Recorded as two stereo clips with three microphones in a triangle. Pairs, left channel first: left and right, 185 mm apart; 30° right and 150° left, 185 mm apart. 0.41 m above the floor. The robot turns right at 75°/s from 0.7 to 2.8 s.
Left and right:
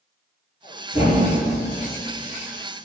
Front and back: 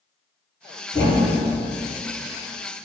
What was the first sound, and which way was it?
A thud, 40° left.